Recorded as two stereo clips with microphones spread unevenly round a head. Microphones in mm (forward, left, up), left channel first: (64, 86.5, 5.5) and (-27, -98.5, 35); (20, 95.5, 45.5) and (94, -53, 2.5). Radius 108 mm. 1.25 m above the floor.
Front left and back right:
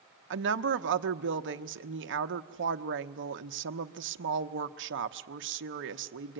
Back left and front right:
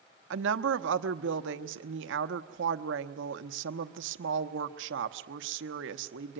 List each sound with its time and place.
0.3 s a woman speaking: 85° right, 0.9 m